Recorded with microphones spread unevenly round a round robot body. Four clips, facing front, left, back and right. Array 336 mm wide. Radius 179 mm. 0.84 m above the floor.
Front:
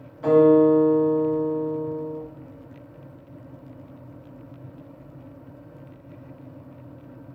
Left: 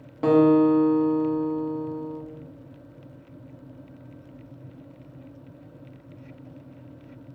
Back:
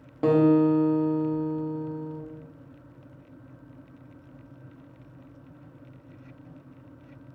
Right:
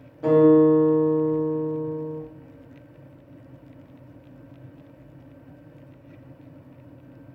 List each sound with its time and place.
0.2 s a guitar: 125° left, 0.8 m